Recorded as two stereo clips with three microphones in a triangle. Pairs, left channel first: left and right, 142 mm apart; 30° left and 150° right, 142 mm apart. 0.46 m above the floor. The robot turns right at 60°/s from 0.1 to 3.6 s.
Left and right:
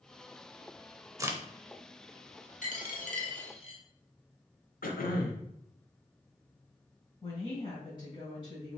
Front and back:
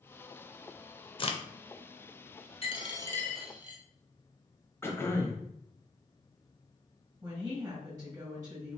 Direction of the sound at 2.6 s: 70° left.